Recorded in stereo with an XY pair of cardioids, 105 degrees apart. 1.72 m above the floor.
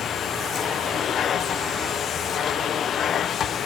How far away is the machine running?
About 1.2 m.